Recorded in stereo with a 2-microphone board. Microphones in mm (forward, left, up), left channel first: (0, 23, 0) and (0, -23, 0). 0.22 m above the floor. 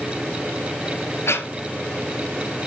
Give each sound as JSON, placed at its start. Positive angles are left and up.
{"t": 1.3, "sound": "breathing", "side_deg": 75, "distance_m": 1.4}